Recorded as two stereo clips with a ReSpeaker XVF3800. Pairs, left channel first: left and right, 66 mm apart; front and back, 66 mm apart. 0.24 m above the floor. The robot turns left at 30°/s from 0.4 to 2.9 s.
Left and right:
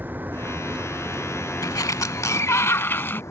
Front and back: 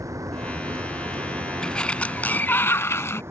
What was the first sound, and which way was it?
A vehicle, 150° right.